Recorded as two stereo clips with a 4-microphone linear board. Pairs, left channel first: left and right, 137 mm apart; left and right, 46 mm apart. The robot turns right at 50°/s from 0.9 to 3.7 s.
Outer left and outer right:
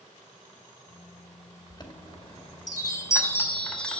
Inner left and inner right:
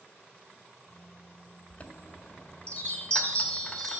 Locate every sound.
1.7 s a chime: 70° left, 1.7 m; by 4.0 s 170° left, 1.7 m